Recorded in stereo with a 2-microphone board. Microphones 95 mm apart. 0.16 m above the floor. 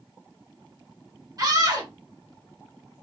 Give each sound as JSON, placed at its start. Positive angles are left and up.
{"t": 1.4, "sound": "a scream", "side_deg": -40, "distance_m": 2.0}